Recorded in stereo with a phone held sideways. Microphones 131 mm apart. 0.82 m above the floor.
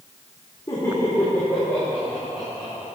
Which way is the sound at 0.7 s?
30° left (ahead or behind).